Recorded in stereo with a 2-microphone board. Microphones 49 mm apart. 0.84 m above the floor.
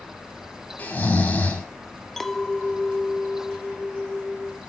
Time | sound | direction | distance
0.8 | snoring | 30° left (ahead or behind) | 6.5 m
2.2 | a clink | 10° left (ahead or behind) | 1.1 m